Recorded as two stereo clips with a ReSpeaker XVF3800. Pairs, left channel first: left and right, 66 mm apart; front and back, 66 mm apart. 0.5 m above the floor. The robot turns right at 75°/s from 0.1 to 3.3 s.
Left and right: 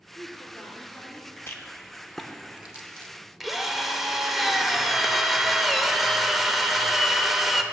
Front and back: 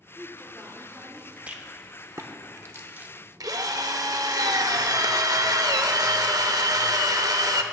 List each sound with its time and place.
0.1 s a woman speaking: 85° left, 1.2 m; by 1.4 s 175° left, 1.2 m
1.5 s a rattle: 120° left, 0.8 m; by 4.4 s 105° right, 0.8 m
3.4 s a drill: straight behind, 0.6 m